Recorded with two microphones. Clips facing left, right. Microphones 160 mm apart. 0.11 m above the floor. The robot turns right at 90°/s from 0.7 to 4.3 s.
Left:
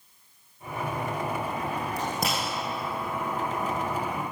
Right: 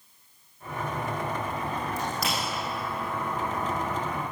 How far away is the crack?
About 5.5 m.